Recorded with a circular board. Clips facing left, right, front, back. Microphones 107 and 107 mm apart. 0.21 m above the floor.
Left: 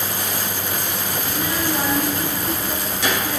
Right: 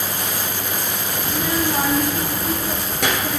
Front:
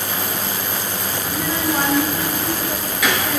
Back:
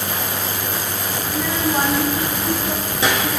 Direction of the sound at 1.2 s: 70° right.